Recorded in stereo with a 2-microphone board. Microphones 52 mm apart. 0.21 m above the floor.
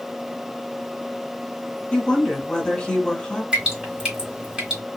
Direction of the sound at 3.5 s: 15° right (ahead or behind).